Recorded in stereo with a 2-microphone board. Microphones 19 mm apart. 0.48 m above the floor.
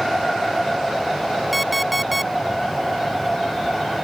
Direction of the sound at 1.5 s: Centre (ahead or behind).